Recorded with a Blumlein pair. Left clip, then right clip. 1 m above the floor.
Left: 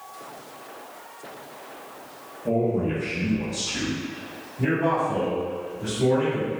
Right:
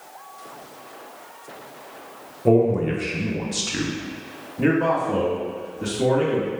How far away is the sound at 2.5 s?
About 0.6 m.